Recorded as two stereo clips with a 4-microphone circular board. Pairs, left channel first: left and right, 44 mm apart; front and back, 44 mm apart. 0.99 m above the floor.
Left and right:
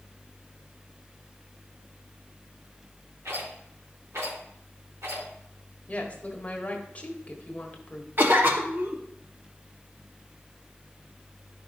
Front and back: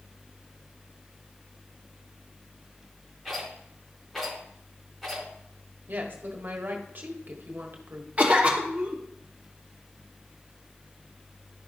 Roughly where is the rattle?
Right.